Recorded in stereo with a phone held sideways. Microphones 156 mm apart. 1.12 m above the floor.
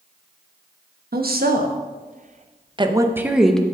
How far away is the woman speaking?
About 1.3 m.